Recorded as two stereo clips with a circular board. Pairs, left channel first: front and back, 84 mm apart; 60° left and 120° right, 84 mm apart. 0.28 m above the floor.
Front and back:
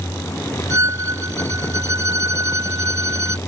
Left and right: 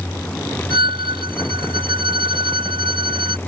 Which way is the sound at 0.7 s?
125° right.